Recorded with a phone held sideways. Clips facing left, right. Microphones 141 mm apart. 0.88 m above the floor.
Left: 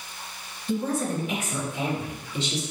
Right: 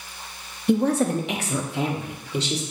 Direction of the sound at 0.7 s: 65° right (ahead or behind).